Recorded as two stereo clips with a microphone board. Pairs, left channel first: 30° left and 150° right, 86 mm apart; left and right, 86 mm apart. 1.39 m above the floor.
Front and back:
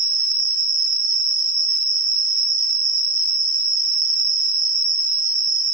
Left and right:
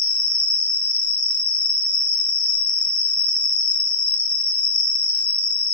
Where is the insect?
75° left, 0.9 m.